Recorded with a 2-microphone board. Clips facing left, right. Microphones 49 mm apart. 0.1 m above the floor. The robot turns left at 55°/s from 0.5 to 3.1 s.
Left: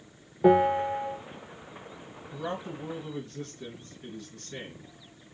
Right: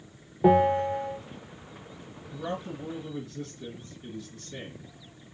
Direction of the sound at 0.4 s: Straight behind.